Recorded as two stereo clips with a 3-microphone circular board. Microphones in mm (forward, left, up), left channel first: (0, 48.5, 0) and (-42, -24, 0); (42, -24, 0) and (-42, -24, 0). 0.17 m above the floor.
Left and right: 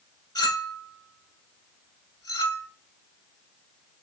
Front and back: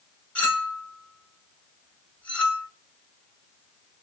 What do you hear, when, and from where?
0.3 s a clink: 70° left, 1.2 m